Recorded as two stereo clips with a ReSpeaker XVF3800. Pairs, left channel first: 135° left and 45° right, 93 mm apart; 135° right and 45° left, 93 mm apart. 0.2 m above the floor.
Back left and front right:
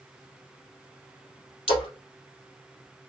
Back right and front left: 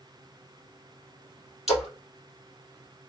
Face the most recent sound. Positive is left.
turn(degrees=130)